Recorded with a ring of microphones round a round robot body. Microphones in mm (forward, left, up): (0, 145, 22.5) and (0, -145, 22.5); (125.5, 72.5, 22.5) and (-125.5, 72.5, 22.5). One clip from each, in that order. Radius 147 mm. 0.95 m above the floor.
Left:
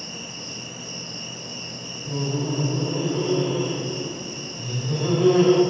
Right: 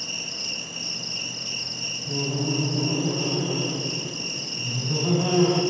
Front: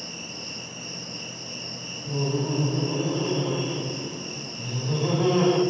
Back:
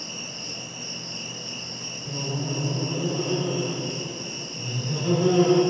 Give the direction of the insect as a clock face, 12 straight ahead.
3 o'clock.